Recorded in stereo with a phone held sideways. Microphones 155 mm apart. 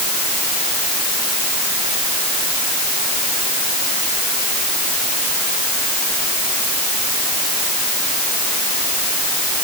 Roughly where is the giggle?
No giggle in this recording.